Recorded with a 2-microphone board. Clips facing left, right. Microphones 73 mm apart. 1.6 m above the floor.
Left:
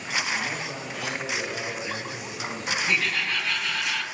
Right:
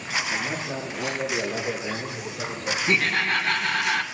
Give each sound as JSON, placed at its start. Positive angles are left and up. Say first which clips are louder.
{"t": 0.3, "sound": "a man speaking", "louder": "right 1 dB", "side_deg": -25, "distance_m": 2.0}
{"t": 2.9, "sound": "laughter", "louder": "right 5 dB", "side_deg": -45, "distance_m": 1.4}